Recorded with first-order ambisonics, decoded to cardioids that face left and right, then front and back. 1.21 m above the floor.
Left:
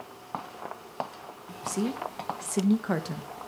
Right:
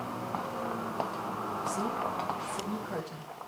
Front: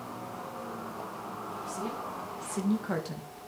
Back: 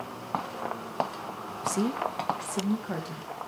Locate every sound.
1.6 s a woman speaking: 160° left, 1.3 m; by 3.3 s 75° left, 1.9 m